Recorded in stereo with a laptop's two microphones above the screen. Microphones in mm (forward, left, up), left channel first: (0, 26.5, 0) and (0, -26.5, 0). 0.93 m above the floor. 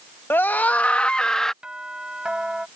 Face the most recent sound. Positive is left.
turn(degrees=-15)  # may be behind; listen again after turning